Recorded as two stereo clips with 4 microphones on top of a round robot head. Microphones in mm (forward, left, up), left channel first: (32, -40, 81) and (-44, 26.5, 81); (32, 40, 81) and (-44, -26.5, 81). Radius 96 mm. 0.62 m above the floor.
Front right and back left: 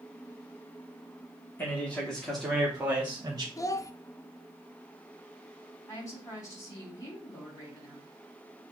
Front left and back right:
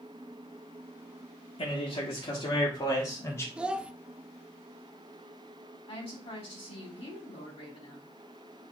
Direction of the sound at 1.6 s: 30° left.